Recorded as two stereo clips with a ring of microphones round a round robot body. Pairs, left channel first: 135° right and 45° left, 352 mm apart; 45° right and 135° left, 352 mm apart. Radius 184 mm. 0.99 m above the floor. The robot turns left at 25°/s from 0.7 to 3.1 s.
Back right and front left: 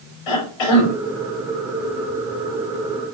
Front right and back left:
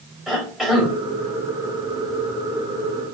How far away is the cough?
About 5.5 m.